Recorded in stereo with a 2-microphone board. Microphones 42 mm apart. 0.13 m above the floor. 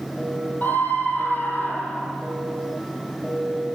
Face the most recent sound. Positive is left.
turn(degrees=50)  # may be behind; listen again after turning